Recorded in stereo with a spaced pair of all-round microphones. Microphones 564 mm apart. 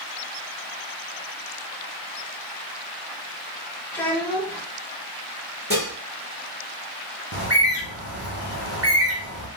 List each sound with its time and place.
3.9 s a child speaking: 5° left (ahead or behind), 0.7 m
5.7 s dishes clattering: 15° right (ahead or behind), 1.5 m
7.3 s a bird: 25° right (ahead or behind), 0.7 m